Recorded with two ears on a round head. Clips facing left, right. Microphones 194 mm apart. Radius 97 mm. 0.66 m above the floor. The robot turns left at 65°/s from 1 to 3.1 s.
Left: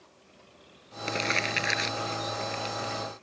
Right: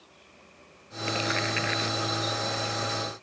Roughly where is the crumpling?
Left.